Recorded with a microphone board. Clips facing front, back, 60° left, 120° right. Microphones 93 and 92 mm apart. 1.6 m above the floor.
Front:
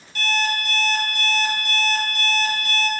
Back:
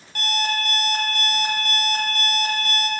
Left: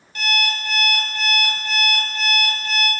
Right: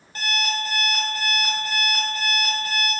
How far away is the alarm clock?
About 1.1 m.